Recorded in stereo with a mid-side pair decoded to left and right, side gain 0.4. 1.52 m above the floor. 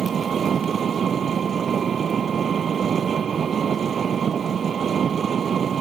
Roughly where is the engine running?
Ahead right.